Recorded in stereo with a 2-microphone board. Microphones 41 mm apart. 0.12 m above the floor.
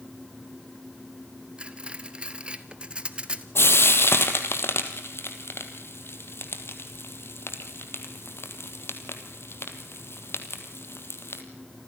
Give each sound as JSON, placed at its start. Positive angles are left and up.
{"t": 1.6, "sound": "cutlery clinking", "side_deg": -25, "distance_m": 1.2}
{"t": 3.5, "sound": "frying", "side_deg": 65, "distance_m": 2.0}